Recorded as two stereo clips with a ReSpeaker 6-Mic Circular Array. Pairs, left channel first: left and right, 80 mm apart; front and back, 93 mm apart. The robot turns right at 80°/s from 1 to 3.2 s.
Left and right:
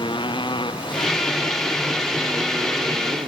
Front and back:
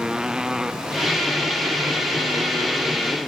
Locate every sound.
0.0 s a motorcycle: 100° left; by 3.3 s 85° right